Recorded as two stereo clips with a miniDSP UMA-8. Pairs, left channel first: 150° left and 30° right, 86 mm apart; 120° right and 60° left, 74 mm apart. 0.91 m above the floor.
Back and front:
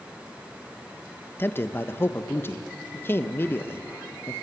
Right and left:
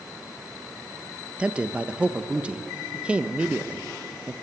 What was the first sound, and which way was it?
A man speaking, 120° left.